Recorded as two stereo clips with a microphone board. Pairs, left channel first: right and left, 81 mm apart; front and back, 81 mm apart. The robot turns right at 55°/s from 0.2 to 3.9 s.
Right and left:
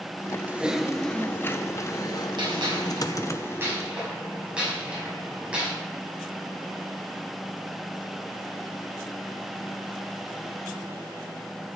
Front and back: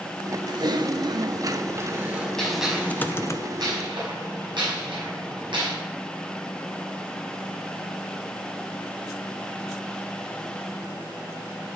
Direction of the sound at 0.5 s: 155° left.